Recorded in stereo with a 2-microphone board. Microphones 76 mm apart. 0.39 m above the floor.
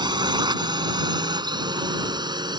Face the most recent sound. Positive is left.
turn(degrees=-65)  # may be behind; listen again after turning